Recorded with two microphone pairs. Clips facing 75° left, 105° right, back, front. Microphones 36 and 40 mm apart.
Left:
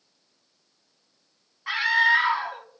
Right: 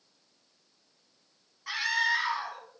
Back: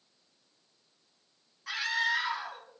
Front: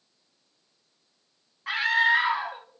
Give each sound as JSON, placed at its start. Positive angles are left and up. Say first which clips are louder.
{"t": 1.7, "sound": "a scream", "louder": "left 8 dB, front 8 dB", "azimuth_deg": 30, "distance_m": 1.9}